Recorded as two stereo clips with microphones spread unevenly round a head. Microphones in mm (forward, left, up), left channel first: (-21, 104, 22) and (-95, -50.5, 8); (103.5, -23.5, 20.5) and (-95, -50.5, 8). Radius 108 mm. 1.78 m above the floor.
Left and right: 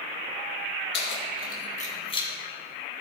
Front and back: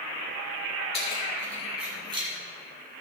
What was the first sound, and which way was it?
Keys jangling, 70° left.